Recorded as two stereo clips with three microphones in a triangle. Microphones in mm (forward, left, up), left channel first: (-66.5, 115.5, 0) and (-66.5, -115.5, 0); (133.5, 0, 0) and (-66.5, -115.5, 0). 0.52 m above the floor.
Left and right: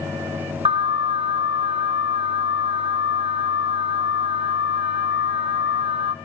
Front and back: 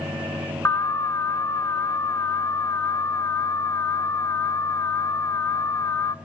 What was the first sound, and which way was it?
An alarm, 40° right.